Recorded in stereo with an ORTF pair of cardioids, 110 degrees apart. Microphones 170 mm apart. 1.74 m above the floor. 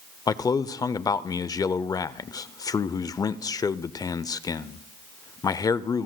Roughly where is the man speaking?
Ahead left.